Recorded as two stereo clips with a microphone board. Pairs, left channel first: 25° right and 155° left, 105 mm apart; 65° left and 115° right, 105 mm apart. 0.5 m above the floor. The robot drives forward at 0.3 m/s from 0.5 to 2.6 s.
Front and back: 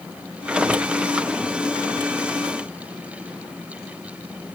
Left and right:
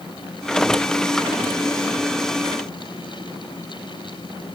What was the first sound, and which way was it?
Only background noise.